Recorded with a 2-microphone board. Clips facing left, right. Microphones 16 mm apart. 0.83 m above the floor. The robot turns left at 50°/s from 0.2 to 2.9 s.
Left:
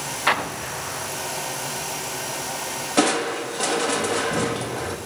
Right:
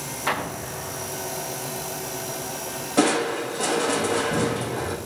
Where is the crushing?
30° left (ahead or behind), 1.2 m.